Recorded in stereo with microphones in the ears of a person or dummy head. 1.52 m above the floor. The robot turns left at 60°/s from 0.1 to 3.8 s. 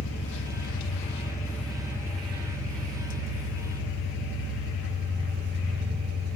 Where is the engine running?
100° left, 1.4 m; by 6.4 s 125° right, 1.4 m.